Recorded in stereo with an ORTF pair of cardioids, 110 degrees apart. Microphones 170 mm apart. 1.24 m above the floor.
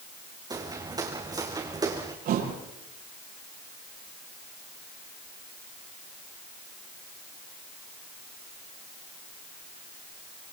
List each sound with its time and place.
0.5 s footsteps: 20° right, 4.5 m
2.2 s a thud: 65° right, 8.5 m